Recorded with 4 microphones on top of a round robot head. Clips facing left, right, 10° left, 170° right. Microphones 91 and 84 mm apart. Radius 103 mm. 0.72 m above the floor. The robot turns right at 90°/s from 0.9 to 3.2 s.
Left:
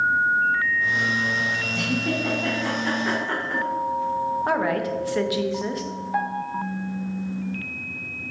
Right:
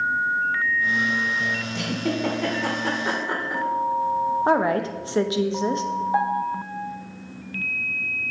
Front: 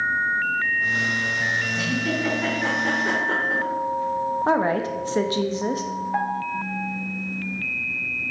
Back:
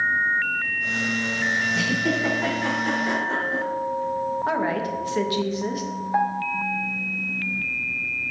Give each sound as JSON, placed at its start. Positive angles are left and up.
{"t": 1.7, "sound": "a giggle", "azimuth_deg": -145, "distance_m": 1.2}
{"t": 4.5, "sound": "a woman speaking", "azimuth_deg": -35, "distance_m": 0.7}
{"t": 6.1, "sound": "a piano", "azimuth_deg": -95, "distance_m": 0.7}